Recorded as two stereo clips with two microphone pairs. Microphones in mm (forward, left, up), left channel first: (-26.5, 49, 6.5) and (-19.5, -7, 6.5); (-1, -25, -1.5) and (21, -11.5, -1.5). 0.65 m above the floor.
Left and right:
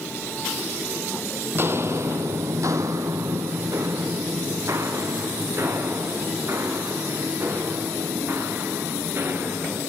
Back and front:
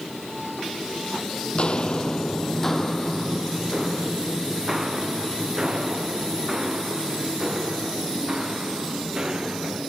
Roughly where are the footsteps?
Behind right.